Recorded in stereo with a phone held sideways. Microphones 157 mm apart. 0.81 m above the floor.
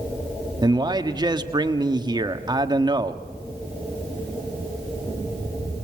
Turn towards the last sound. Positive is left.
turn(degrees=-30)  # may be behind; listen again after turning